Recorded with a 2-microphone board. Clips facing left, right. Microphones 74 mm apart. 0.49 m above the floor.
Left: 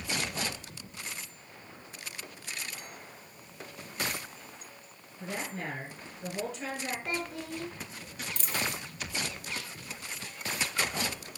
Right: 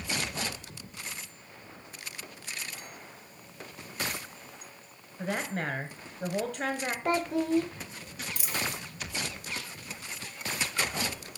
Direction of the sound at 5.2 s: 70° right (ahead or behind).